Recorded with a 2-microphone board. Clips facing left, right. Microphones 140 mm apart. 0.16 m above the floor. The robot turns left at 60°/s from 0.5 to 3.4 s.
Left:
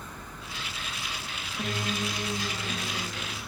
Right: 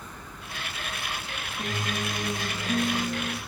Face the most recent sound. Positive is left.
turn(degrees=-80)